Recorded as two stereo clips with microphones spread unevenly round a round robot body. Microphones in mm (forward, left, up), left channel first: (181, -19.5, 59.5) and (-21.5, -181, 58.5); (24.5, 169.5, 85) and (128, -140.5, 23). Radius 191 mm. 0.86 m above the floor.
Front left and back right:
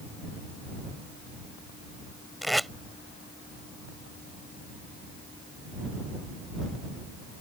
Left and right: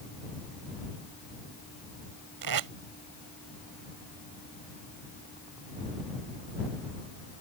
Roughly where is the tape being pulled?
Ahead right.